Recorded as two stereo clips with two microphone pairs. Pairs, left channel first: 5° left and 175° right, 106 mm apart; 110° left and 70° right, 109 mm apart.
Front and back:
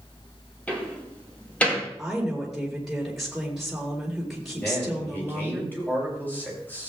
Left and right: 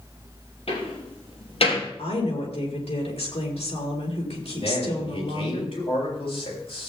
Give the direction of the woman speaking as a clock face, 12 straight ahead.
9 o'clock.